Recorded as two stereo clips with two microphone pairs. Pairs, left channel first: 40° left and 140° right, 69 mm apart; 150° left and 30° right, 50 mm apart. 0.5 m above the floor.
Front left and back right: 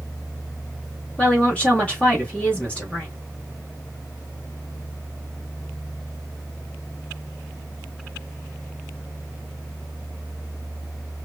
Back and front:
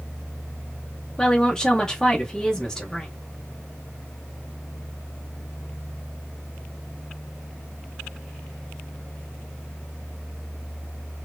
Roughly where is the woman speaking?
Left.